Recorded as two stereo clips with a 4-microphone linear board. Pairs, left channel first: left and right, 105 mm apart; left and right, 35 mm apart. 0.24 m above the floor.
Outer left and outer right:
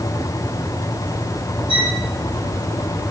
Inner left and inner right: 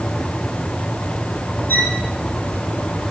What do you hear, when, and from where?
1.7 s a violin: 85° left, 8.5 m